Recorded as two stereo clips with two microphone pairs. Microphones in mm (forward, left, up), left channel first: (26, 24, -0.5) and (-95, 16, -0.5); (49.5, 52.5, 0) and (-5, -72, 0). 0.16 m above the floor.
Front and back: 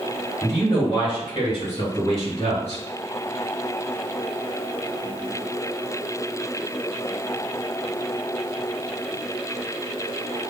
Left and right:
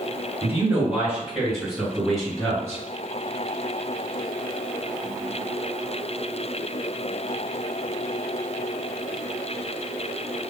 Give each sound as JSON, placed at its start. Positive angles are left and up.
{"t": 0.4, "sound": "a man speaking", "azimuth_deg": -45, "distance_m": 1.9}